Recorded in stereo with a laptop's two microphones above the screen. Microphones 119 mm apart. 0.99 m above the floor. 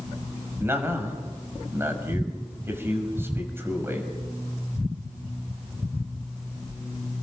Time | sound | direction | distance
0.6 | a man speaking | 20° right (ahead or behind) | 6 m